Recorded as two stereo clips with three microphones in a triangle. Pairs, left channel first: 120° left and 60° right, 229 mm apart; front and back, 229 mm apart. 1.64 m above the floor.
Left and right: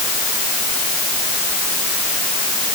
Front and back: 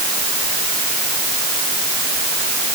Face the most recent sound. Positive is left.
No sound to turn to.